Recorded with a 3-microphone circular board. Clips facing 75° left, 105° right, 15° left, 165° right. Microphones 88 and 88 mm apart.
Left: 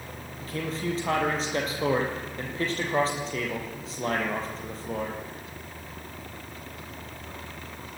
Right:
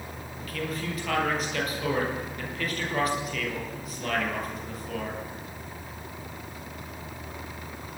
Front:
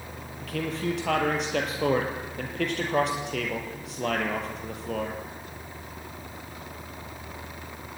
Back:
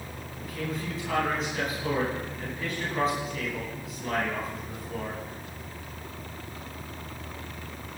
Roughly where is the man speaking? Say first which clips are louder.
Left 2 dB, front 4 dB; ahead.